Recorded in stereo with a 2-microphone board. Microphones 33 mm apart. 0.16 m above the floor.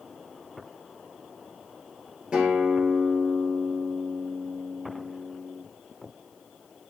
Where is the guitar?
30° right (ahead or behind), 2.5 m.